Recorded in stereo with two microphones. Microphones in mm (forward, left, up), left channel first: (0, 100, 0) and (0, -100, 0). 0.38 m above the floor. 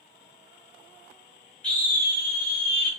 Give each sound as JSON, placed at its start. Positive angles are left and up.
{"t": 1.6, "sound": "a scream", "side_deg": 5, "distance_m": 1.6}